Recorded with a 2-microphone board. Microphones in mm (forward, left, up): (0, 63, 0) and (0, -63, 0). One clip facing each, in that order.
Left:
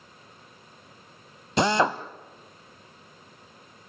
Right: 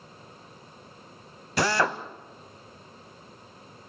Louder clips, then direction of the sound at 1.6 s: Left 3 dB; 20° left (ahead or behind).